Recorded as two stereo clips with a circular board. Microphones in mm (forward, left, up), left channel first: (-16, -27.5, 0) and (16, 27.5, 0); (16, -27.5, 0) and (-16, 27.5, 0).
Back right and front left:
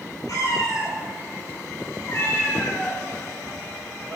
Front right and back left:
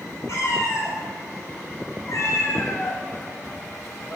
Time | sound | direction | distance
0.3 | a cat meowing | 95° right | 2.0 m